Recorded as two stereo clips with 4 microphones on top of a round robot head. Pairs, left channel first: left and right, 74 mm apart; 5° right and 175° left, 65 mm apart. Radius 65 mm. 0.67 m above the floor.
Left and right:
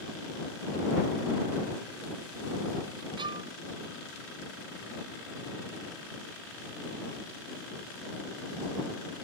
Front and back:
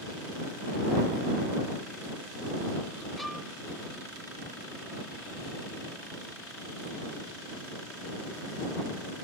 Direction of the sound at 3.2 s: 95° right.